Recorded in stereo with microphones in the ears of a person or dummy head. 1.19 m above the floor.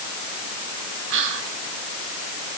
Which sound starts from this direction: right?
Whispering, at 1.1 s.